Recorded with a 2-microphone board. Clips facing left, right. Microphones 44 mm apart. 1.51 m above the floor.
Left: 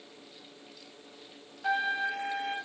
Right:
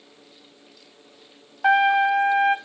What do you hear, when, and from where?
1.6 s a trumpet: 65° right (ahead or behind), 0.5 m